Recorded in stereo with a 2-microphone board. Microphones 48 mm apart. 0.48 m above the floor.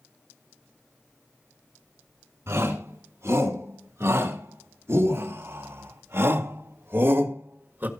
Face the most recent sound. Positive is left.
turn(degrees=-45)  # may be behind; listen again after turning